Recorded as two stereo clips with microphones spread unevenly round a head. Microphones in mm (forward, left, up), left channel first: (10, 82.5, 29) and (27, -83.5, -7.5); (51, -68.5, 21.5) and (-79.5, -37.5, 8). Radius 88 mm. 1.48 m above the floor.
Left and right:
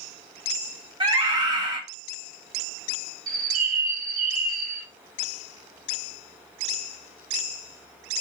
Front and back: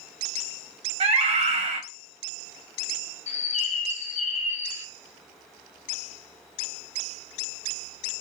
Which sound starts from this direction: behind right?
A scream, at 1.0 s.